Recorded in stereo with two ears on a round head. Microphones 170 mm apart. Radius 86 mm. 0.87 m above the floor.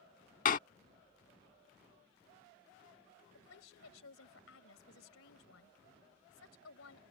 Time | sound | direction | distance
0.5 | a door slam | 45° left (ahead or behind) | ?
3.3 | a woman speaking | 80° left | ?